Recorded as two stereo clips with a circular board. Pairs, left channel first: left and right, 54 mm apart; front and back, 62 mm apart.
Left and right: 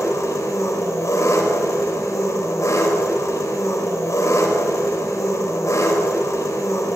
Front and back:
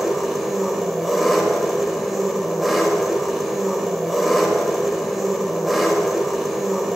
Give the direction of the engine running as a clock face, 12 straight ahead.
9 o'clock.